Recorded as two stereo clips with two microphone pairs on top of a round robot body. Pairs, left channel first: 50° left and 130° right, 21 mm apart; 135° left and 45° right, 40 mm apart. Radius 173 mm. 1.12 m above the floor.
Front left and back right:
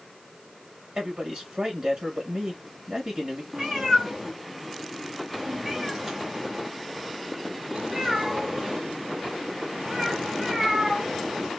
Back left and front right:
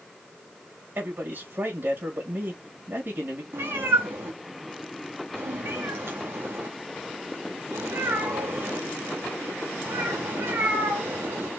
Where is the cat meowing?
60° right, 1.0 m.